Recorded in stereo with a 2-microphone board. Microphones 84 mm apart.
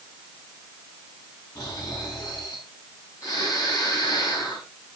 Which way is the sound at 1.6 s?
45° left (ahead or behind).